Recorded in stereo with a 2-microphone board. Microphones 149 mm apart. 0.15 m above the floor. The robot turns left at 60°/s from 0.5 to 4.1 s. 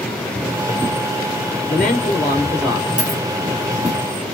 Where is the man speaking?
70° left, 3 m; by 2.9 s straight ahead, 3 m.